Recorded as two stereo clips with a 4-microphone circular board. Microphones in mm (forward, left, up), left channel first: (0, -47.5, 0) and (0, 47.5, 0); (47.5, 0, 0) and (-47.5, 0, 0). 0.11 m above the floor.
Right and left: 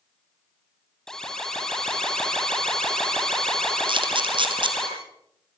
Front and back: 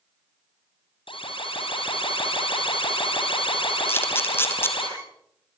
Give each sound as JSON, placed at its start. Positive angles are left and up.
{"t": 1.1, "sound": "an alarm", "azimuth_deg": -5, "distance_m": 5.5}
{"t": 3.9, "sound": "a camera shutter", "azimuth_deg": 65, "distance_m": 2.5}